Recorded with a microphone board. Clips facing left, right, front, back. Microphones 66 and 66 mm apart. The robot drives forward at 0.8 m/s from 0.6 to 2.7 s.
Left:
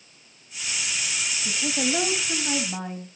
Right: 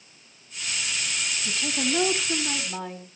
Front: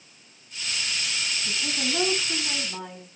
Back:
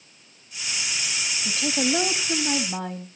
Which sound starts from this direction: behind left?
A woman speaking, at 1.4 s.